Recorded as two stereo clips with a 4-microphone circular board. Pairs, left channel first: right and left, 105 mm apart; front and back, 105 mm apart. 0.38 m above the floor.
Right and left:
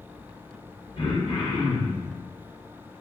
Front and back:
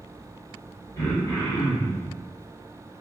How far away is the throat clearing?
About 1.7 m.